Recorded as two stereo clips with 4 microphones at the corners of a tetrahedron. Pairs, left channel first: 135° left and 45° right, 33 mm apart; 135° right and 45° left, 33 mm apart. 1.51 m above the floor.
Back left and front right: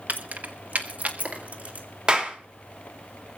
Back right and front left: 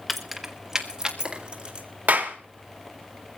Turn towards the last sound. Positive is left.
turn(degrees=15)